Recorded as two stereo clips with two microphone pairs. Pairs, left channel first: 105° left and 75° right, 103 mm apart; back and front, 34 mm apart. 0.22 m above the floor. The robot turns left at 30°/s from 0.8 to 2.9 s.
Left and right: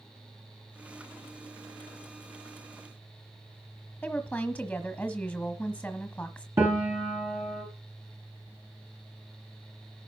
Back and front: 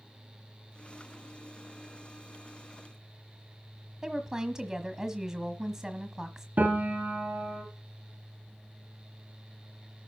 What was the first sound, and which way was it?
A woman speaking, 45° left.